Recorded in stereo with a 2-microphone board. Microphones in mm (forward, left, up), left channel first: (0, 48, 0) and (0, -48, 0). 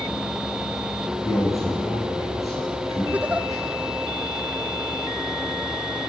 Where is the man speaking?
35° left (ahead or behind), 8 m.